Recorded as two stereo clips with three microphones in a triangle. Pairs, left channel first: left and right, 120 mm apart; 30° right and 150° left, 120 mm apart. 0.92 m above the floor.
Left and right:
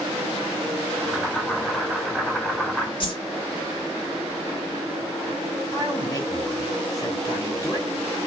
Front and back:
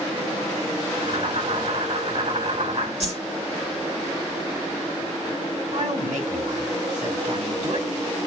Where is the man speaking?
150° left, 5.5 m.